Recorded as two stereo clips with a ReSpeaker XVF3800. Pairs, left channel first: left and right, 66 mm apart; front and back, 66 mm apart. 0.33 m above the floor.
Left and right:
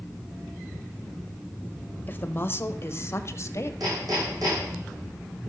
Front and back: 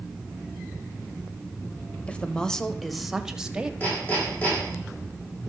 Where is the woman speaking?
55° left, 1.2 m; by 3.7 s 110° left, 1.4 m.